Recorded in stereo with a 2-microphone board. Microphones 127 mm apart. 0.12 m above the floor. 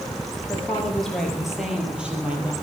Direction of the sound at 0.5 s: 10° left (ahead or behind).